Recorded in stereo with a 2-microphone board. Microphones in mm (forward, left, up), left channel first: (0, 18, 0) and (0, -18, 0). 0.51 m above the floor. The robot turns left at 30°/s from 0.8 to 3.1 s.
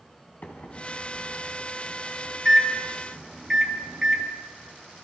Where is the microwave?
55° left (ahead or behind), 4.5 m; by 4.2 s 10° right (ahead or behind), 4.5 m.